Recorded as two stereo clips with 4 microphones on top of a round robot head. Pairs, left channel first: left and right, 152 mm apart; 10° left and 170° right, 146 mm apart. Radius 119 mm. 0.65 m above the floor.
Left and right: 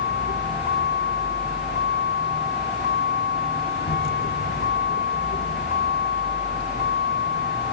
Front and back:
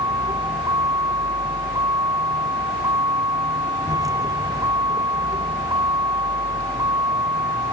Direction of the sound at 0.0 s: 125° left.